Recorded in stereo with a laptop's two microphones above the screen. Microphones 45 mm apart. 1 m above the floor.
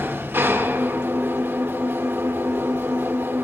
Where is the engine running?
55° right (ahead or behind), 0.9 m.